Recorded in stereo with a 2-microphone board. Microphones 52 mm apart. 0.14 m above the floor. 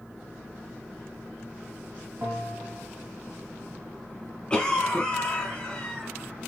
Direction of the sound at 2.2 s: 45° right (ahead or behind).